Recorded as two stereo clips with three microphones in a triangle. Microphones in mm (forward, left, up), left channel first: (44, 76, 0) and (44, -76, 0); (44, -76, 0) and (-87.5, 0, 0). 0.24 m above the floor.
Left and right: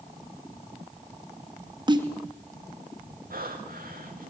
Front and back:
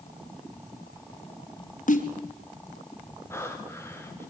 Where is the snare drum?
35° right, 3 m.